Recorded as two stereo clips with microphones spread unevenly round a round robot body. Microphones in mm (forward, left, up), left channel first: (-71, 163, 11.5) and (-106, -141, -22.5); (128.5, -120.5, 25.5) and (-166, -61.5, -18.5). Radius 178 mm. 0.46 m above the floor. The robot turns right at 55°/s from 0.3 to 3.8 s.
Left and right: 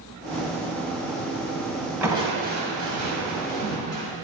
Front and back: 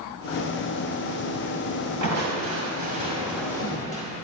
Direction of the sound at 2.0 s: Straight behind.